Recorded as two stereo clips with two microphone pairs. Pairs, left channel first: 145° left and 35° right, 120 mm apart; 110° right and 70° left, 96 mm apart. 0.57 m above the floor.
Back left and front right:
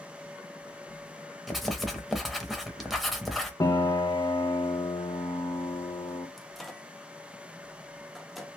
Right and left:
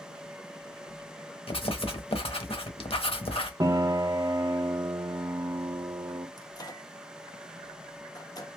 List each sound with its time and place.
1.5 s writing: 125° right, 0.8 m
3.6 s a piano: 100° left, 0.6 m
6.4 s a microwave: 130° right, 0.6 m